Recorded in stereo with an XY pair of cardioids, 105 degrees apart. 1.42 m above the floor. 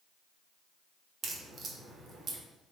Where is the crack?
45° right, 0.8 m.